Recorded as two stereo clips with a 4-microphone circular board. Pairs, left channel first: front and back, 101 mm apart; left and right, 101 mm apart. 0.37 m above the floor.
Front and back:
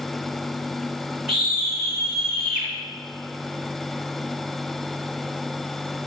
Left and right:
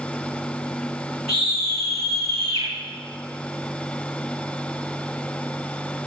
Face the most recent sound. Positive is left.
turn(degrees=-95)